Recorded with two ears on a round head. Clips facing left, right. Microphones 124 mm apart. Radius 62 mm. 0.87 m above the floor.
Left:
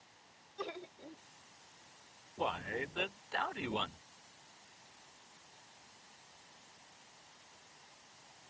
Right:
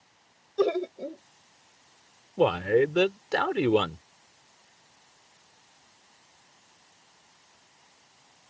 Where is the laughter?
75° right (ahead or behind).